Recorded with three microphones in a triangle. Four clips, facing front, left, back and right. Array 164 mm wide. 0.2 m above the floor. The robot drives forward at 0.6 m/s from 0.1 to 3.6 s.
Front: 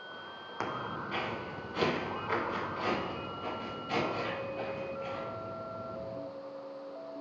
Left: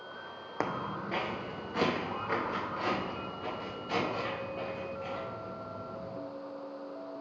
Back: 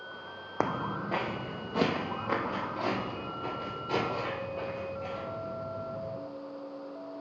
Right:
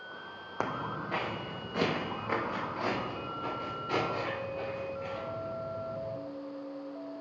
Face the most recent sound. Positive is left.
turn(degrees=-175)